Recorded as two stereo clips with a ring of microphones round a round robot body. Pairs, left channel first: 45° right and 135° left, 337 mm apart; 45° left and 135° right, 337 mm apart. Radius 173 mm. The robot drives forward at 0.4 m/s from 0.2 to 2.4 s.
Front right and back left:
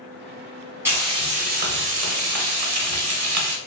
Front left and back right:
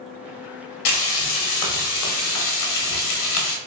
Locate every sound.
0.8 s frying: 50° left, 0.8 m; by 3.6 s 100° left, 0.7 m